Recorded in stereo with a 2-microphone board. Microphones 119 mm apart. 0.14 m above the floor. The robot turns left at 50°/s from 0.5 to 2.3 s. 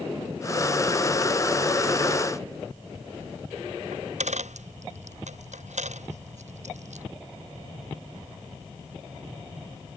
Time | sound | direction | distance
3.9 | a dropped coin | 80° right | ?